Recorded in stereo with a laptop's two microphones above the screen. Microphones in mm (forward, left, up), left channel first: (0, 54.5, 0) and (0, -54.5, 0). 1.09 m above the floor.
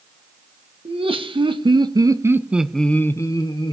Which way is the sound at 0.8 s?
65° right (ahead or behind).